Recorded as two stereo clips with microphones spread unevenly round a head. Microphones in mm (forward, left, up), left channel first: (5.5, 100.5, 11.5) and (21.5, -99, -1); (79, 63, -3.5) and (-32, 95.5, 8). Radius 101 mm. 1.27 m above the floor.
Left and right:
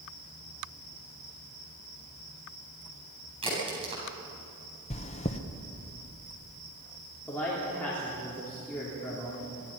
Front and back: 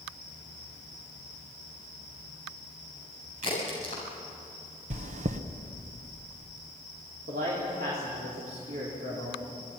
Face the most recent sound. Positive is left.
turn(degrees=180)